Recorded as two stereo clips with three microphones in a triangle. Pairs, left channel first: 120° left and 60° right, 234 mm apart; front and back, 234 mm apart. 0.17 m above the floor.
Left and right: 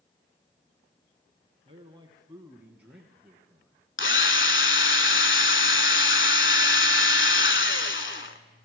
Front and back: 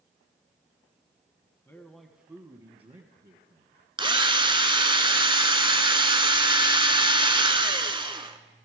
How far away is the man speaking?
About 1.3 m.